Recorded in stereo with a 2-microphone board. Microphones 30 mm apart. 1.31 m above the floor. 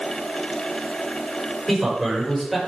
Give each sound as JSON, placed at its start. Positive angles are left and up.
{"t": 1.7, "sound": "a man speaking", "side_deg": -5, "distance_m": 6.0}